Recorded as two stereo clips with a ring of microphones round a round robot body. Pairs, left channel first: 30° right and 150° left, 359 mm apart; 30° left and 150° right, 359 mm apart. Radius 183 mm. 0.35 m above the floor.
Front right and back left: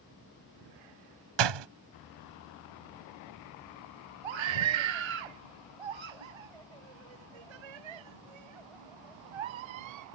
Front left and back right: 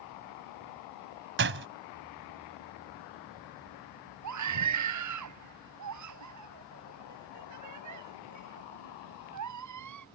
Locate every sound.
1.4 s a door slam: 150° left
4.2 s a scream: 165° left